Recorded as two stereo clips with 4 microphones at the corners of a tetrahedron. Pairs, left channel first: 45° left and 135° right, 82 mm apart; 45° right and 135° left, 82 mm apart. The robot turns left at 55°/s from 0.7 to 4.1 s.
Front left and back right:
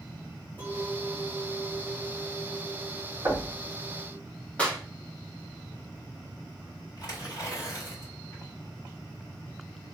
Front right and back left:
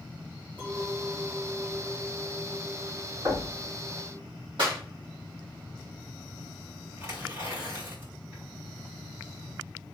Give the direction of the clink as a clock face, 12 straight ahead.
2 o'clock.